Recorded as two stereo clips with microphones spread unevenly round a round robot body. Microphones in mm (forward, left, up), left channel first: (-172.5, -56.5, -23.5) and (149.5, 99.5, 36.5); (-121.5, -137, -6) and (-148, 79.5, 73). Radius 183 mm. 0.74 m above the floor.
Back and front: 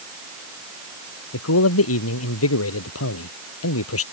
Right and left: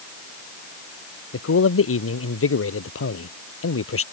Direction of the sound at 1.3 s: 100° right.